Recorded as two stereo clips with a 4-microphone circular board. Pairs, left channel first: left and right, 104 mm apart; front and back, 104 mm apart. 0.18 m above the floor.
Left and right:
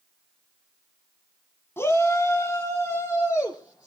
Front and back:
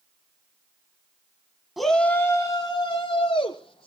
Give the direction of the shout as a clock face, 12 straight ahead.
9 o'clock.